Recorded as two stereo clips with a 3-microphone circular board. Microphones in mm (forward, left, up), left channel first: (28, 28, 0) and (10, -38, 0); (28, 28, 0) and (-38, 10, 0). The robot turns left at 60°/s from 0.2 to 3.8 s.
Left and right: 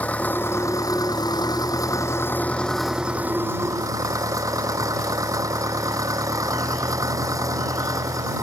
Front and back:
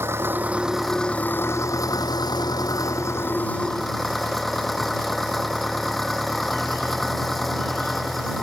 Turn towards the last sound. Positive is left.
turn(degrees=-70)